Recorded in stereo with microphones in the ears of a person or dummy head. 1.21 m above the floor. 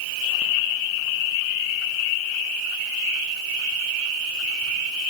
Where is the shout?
I don't hear a shout.